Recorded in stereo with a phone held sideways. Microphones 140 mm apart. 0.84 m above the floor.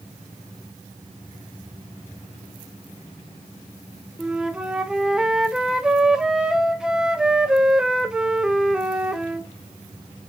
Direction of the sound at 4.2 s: 5° right (ahead or behind).